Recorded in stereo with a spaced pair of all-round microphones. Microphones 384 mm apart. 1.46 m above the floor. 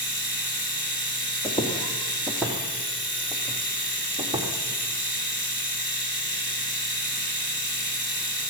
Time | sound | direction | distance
0.0 | a machine running | 65° left (ahead or behind) | 3 m
1.4 | footsteps | 15° left (ahead or behind) | 2 m